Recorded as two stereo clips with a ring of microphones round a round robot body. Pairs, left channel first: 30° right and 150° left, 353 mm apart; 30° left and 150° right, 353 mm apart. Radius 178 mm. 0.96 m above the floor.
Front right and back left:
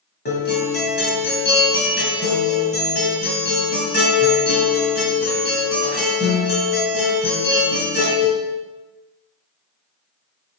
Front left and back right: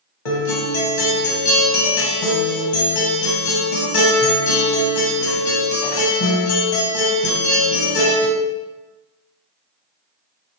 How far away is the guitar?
About 2 m.